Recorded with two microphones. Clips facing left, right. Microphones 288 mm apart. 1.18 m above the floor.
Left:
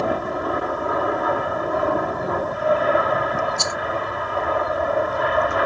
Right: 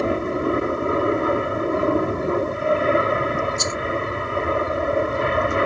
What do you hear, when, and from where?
0.0 s an aircraft: 30° right (ahead or behind)
3.6 s a rattle: 70° left (ahead or behind)